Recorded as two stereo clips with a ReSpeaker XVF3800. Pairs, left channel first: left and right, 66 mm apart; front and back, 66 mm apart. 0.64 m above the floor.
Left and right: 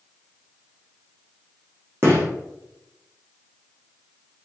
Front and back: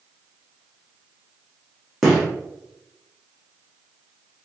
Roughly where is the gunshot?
Right.